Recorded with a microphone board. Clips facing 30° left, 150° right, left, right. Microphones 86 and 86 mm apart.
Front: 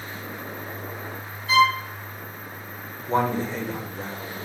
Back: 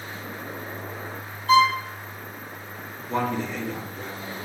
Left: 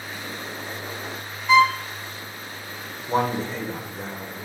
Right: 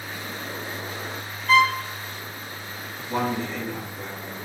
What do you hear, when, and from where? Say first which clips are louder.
1.5 s a violin: back 1 dB, left 2 dB; 175° left, 1.8 m
3.1 s a man speaking: front 3 dB, left 3 dB; 55° left, 1.0 m